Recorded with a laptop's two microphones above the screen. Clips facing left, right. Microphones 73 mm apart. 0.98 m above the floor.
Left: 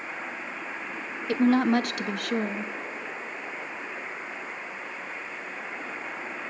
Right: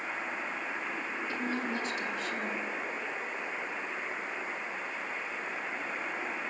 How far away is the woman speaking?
About 0.7 m.